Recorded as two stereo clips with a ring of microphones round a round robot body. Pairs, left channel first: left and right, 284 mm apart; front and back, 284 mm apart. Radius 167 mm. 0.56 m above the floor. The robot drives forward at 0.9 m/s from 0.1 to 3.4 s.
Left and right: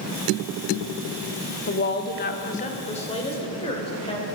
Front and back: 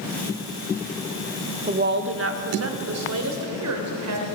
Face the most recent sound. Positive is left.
turn(degrees=160)